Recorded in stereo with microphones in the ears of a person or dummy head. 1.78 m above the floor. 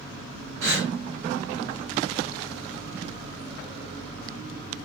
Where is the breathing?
80° right, 7.5 m.